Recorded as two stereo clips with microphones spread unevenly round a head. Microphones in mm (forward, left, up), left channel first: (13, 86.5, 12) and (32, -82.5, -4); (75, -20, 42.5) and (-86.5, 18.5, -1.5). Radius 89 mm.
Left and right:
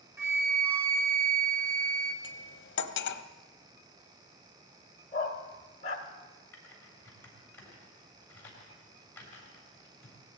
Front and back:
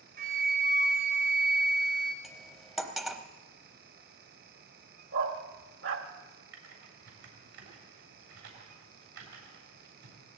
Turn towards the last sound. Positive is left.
turn(degrees=175)